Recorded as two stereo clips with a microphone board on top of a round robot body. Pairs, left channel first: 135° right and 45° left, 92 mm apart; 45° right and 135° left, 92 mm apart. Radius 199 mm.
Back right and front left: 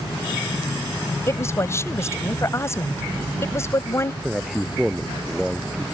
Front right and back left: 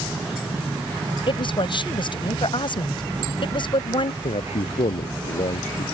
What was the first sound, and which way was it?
A woman speaking, 75° right.